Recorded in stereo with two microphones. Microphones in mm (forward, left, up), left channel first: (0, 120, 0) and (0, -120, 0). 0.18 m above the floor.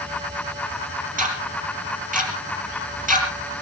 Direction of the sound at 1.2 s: 35° right (ahead or behind).